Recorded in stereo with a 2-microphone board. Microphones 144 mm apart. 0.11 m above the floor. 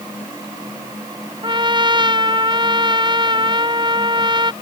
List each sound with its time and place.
1.4 s a trumpet: 35° right (ahead or behind)